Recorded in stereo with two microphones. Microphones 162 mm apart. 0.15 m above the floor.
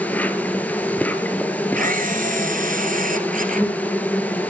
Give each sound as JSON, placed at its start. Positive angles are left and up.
{"t": 0.0, "sound": "an insect", "side_deg": 10, "distance_m": 1.6}
{"t": 1.8, "sound": "a camera shutter", "side_deg": -50, "distance_m": 2.0}